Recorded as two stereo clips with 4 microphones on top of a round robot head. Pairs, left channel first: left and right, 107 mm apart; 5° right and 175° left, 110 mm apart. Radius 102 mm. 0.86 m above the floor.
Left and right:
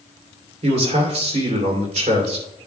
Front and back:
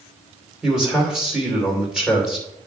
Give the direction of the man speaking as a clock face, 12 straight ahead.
3 o'clock.